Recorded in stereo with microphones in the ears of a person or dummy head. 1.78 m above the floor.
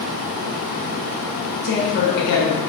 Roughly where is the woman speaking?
Left.